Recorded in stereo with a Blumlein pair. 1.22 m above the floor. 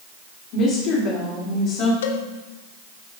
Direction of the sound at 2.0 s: 60° left.